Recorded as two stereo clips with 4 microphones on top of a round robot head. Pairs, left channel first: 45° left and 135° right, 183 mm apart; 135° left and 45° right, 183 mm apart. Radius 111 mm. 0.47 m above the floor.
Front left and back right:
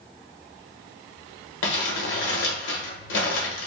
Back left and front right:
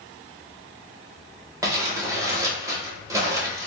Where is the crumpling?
30° left, 0.8 m.